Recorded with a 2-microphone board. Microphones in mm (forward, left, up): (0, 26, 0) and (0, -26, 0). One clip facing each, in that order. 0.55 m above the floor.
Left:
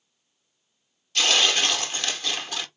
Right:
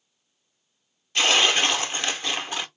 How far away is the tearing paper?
About 0.6 m.